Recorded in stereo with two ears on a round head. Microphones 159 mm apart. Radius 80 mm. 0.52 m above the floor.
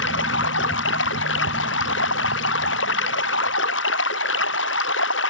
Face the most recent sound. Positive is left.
turn(degrees=70)  # may be behind; listen again after turning